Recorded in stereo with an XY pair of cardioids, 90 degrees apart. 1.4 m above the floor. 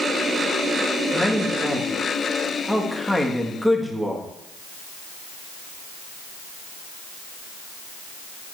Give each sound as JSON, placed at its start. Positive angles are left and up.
{"t": 1.1, "sound": "a man speaking", "azimuth_deg": 0, "distance_m": 1.9}